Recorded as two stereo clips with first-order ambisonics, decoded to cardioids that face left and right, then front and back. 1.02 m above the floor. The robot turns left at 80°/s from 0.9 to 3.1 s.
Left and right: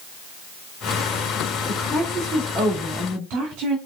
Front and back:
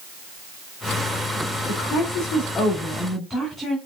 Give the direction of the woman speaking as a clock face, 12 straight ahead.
11 o'clock.